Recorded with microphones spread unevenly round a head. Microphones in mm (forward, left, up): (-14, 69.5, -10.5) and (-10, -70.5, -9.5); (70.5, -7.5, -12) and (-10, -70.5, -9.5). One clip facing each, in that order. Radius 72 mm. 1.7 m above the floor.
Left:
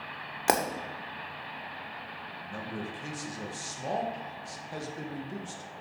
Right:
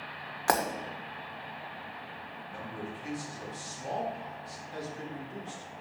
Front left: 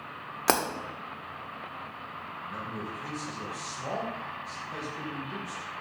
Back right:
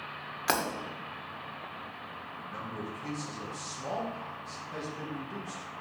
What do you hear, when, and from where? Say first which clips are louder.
0.5 s breaking glass: left 1 dB, front left 4 dB; 40° left, 1.6 m
2.4 s a man speaking: left 3 dB, front left 1 dB; 125° left, 2 m